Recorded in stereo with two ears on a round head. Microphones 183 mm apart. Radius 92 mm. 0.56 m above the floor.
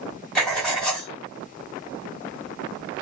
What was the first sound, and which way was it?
Writing, 5° left (ahead or behind).